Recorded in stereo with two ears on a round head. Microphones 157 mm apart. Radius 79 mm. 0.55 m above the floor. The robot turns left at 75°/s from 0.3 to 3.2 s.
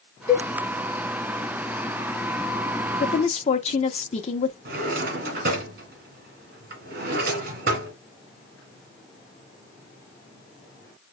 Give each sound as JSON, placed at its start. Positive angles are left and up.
{"t": 0.3, "sound": "a cowbell", "side_deg": 65, "distance_m": 3.0}
{"t": 3.0, "sound": "a woman speaking", "side_deg": 40, "distance_m": 0.8}
{"t": 4.7, "sound": "a drawer", "side_deg": -60, "distance_m": 1.9}